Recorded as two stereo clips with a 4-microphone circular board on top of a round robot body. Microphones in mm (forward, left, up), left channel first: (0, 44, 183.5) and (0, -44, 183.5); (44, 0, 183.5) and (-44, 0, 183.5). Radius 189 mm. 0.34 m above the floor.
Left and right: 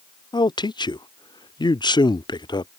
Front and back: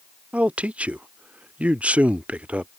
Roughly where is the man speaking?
Left.